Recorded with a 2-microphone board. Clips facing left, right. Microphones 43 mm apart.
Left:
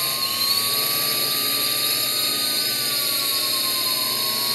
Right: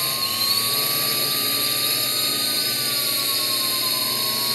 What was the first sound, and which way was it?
A drone, centre (ahead or behind).